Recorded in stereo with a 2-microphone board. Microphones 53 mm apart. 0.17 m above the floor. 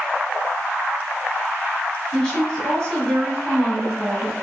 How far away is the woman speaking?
About 1.1 m.